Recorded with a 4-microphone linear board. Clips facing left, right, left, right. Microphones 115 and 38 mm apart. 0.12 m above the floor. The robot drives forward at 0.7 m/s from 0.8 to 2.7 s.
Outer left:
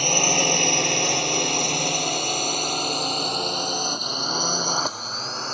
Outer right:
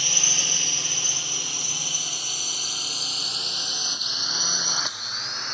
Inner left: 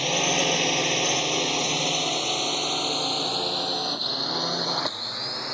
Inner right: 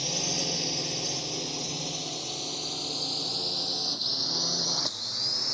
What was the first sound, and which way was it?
A drone, 55° left (ahead or behind).